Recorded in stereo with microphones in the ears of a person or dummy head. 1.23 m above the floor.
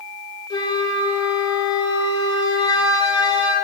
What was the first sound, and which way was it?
A flute, 40° left (ahead or behind).